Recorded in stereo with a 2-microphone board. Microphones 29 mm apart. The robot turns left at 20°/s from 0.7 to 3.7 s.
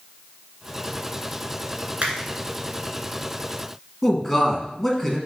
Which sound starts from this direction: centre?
A man speaking, at 4.0 s.